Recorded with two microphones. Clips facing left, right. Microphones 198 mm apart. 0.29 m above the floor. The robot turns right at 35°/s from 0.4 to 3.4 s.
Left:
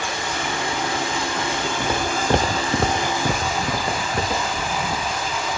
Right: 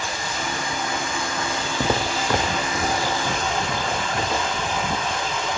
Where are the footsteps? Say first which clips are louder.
Right 3 dB; 35° right (ahead or behind), 0.9 m; by 4.7 s 40° left (ahead or behind), 2.5 m.